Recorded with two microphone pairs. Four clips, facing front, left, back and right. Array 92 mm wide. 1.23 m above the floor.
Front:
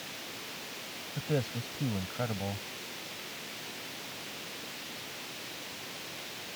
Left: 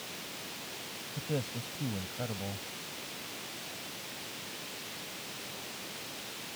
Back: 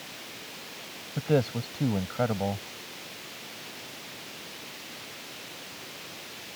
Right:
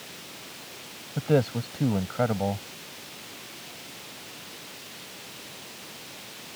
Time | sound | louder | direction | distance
1.2 | a man speaking | right 13 dB, back 8 dB | 125° right | ?